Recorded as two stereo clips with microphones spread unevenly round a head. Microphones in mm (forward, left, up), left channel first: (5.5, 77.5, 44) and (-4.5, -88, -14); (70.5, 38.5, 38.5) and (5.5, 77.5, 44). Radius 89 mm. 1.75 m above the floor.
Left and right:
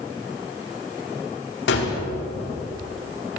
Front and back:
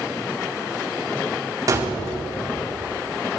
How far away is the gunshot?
About 4.5 m.